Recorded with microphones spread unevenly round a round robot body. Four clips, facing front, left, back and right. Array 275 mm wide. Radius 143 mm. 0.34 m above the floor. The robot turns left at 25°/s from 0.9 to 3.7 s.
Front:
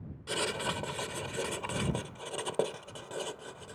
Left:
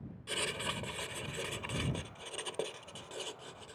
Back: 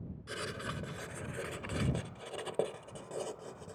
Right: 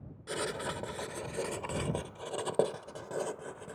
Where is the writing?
35° right; by 3.8 s 105° right.